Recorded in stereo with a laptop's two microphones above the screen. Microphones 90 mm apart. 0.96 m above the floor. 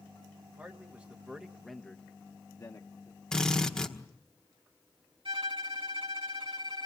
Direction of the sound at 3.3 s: 10° left (ahead or behind).